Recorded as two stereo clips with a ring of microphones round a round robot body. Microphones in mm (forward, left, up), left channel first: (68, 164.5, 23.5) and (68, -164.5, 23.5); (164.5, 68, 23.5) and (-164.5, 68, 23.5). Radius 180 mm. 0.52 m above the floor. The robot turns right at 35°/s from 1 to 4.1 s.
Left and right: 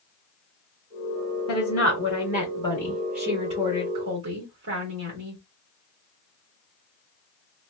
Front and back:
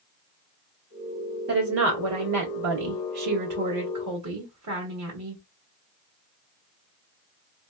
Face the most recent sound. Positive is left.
turn(degrees=-145)